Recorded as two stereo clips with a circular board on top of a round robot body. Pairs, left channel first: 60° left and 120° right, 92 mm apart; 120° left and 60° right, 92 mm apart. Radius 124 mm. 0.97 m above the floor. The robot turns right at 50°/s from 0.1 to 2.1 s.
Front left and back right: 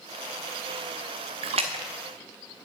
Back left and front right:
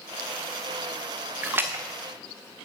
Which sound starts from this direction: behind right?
A splash, at 1.4 s.